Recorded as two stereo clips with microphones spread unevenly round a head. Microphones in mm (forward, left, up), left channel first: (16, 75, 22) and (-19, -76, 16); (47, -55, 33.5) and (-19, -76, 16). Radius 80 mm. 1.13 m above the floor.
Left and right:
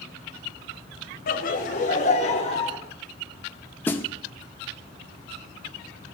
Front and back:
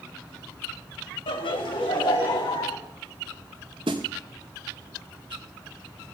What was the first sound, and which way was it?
Laughter, 45° left.